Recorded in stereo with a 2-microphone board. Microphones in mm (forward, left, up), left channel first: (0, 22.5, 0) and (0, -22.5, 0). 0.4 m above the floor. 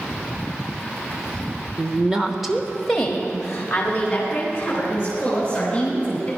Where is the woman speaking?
30° right (ahead or behind), 0.9 m; by 6.3 s 20° left (ahead or behind), 5.5 m.